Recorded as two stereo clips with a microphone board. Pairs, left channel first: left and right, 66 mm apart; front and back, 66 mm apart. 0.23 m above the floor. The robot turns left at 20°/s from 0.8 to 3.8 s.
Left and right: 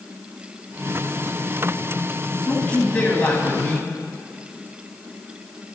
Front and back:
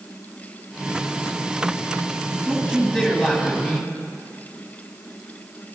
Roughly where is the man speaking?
Left.